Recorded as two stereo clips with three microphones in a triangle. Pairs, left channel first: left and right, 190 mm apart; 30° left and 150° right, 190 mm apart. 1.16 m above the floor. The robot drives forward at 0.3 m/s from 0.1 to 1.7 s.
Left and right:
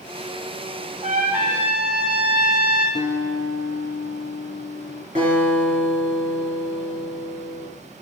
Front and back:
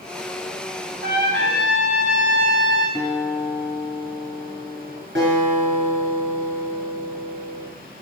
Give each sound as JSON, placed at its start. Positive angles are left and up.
{"t": 1.0, "sound": "a trumpet", "azimuth_deg": -140, "distance_m": 1.9}
{"t": 3.0, "sound": "a guitar", "azimuth_deg": 125, "distance_m": 1.2}
{"t": 5.2, "sound": "a guitar", "azimuth_deg": -140, "distance_m": 3.5}